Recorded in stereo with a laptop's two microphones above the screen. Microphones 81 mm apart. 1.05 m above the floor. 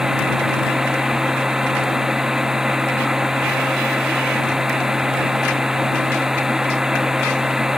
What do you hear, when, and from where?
0.0 s a machine running: 10° right (ahead or behind)